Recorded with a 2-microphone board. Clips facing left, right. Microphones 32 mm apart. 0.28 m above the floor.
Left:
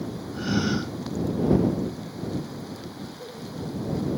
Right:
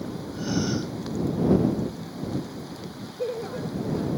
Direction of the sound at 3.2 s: 85° right.